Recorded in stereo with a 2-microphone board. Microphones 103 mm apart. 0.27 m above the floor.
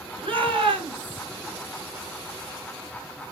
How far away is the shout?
About 3.5 m.